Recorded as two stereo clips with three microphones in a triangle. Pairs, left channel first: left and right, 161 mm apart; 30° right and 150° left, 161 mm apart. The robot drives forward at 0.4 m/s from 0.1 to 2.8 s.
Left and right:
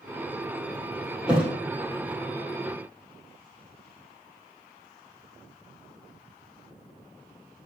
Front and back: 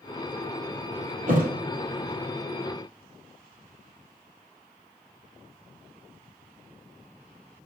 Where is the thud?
175° right, 3 m.